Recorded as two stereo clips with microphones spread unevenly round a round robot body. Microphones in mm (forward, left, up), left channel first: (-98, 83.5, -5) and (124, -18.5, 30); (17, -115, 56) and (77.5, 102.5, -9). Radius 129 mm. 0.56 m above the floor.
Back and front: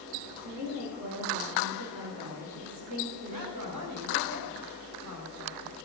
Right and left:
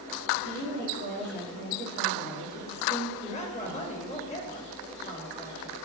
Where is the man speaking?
40° right, 3.5 m.